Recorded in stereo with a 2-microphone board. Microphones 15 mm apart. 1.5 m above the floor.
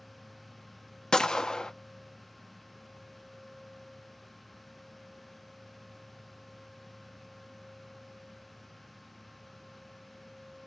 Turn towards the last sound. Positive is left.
turn(degrees=55)  # may be behind; listen again after turning